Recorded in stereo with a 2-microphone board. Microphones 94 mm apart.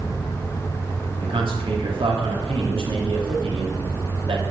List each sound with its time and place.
1.2 s a man speaking: 70° right (ahead or behind), 2.5 m